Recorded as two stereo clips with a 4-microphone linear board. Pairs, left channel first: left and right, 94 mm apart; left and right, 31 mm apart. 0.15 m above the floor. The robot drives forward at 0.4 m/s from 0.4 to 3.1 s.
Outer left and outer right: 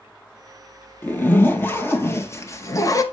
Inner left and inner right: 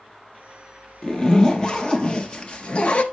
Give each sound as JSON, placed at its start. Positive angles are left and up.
{"t": 1.0, "sound": "a zipper", "side_deg": 20, "distance_m": 1.4}